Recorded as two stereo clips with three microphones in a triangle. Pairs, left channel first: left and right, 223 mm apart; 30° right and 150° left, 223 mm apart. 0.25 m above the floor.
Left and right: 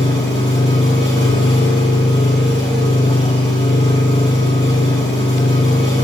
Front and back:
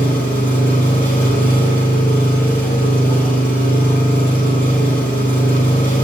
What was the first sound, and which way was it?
An engine running, 25° left.